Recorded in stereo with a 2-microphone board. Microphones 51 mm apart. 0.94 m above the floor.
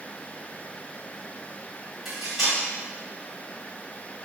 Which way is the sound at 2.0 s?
Centre (ahead or behind).